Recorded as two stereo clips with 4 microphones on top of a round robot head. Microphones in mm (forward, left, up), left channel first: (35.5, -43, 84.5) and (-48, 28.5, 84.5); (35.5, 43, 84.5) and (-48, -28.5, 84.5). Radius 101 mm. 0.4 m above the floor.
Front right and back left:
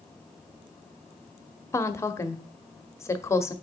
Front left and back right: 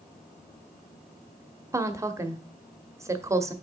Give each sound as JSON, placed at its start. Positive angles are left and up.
{"t": 1.7, "sound": "a woman speaking", "azimuth_deg": -90, "distance_m": 1.1}